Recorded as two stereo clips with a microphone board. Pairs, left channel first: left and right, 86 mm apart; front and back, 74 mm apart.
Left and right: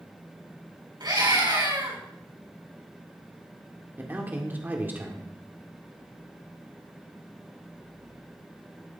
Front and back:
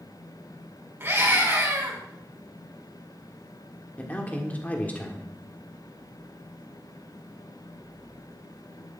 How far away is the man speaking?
About 1.5 m.